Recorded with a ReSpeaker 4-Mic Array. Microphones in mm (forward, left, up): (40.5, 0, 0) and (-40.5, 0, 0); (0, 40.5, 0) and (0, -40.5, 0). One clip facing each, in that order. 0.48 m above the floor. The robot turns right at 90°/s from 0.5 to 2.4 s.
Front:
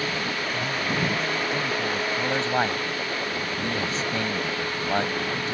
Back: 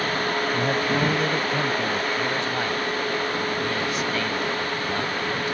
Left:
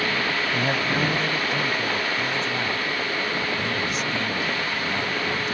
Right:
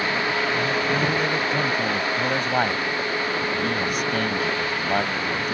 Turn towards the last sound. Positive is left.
turn(degrees=-55)